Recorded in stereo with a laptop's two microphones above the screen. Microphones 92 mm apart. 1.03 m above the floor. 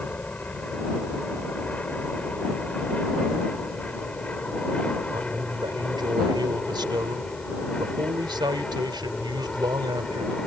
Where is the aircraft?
15° left (ahead or behind); by 10.5 s 10° left (ahead or behind).